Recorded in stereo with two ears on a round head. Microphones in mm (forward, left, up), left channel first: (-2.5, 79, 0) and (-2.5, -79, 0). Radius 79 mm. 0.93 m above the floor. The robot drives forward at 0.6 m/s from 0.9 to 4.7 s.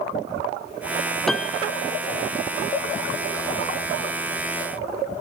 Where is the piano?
Centre (ahead or behind).